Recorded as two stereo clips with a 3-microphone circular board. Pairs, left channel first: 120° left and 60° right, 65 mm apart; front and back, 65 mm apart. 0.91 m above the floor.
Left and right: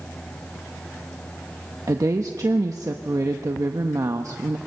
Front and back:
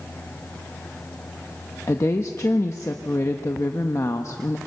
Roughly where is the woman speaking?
Ahead right.